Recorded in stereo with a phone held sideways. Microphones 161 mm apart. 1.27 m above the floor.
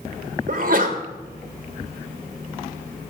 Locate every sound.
0.5 s a sneeze: 55° right (ahead or behind), 1.4 m